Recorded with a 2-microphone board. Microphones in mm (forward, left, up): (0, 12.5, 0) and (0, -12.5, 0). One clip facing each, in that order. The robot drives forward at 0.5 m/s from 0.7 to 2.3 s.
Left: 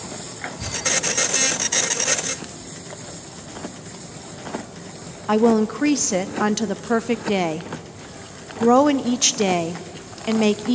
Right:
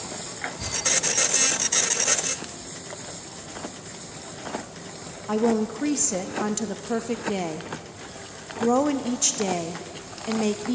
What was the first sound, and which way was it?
A woman speaking, 40° left (ahead or behind).